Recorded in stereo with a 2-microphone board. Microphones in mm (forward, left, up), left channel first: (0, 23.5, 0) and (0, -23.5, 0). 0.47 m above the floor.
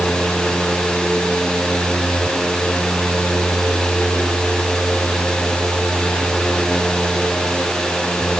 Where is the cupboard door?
No cupboard door in this recording.